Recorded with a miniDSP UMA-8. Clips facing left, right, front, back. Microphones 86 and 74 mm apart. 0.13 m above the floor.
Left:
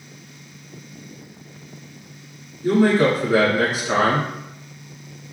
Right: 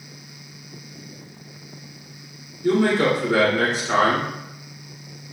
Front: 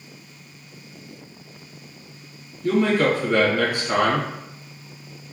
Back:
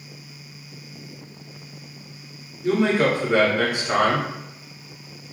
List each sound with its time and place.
2.6 s a man speaking: 150° left, 1.4 m